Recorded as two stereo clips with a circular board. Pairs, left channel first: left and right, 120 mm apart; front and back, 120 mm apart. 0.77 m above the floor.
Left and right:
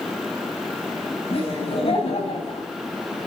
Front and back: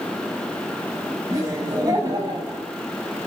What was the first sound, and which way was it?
Laughter, 120° left.